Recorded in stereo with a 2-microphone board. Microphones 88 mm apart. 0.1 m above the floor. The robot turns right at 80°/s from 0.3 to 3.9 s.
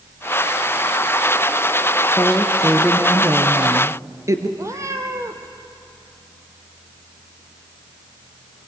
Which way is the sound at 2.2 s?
145° left.